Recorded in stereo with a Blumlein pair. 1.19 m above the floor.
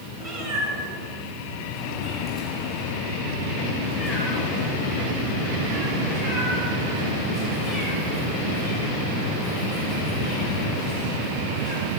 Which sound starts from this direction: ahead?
A cat meowing, at 0.2 s.